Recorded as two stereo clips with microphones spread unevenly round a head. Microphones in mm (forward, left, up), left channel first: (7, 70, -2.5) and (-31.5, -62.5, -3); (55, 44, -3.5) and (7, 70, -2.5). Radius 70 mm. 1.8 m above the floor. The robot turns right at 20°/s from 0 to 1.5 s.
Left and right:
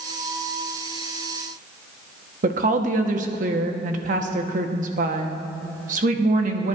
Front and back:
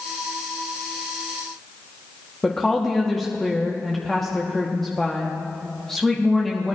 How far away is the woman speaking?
About 1.1 m.